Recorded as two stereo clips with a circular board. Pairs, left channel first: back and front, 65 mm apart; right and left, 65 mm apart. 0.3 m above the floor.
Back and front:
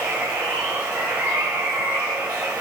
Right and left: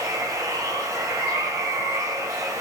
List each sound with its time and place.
0.0 s running water: 45° left, 6 m